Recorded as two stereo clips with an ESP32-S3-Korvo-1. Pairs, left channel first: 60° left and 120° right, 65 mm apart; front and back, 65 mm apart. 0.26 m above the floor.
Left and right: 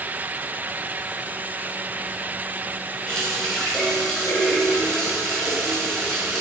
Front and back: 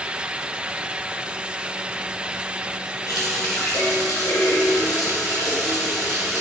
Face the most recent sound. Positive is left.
turn(degrees=-20)